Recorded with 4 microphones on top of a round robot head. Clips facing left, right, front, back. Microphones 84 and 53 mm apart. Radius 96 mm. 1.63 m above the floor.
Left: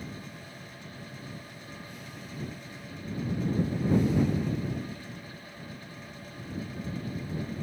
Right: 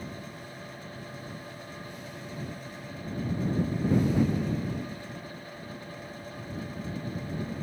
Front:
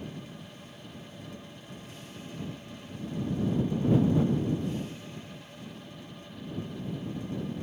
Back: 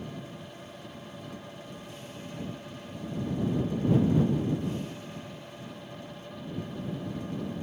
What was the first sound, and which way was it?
Only background noise.